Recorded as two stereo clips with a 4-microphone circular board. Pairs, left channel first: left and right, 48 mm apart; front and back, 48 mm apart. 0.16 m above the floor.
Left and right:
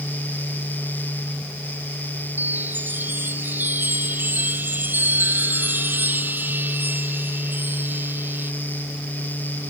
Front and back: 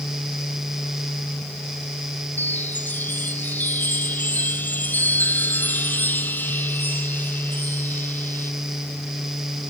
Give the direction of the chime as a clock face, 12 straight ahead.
2 o'clock.